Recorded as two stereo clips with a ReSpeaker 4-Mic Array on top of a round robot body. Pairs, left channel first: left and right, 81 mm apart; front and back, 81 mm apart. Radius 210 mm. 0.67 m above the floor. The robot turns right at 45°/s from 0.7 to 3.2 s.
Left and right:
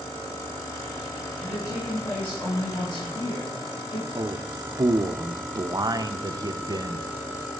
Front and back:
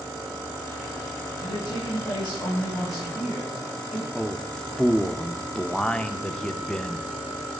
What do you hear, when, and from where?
1.4 s a woman speaking: 15° right, 4 m; by 4.0 s 65° left, 4 m
4.2 s a man speaking: 80° right, 0.7 m